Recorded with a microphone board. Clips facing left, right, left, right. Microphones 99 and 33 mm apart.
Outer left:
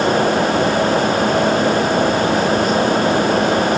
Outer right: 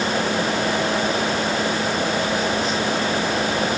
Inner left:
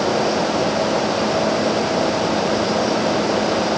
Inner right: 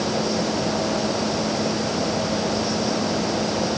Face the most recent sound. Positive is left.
No sound to turn to.